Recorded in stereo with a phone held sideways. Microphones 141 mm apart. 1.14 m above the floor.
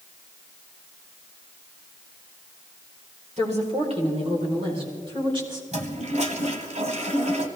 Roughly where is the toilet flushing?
Right.